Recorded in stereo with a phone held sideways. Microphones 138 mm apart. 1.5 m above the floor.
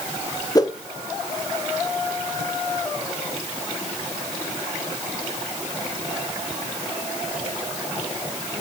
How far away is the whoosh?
About 1.1 m.